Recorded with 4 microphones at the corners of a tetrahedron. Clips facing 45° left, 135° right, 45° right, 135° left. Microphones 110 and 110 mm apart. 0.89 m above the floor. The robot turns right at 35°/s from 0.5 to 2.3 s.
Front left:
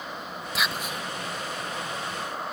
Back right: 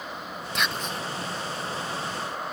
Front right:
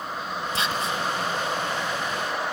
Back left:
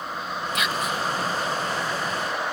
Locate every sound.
0.6 s whispering: 40° right, 0.5 m; by 1.0 s 25° right, 0.5 m